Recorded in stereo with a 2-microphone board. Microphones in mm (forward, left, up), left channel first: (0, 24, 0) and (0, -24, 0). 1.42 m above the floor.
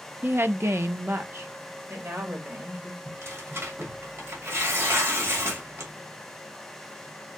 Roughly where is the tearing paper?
Right.